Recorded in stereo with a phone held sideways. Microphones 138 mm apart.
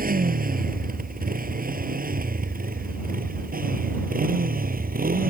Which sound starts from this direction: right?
A motorcycle, at 0.0 s.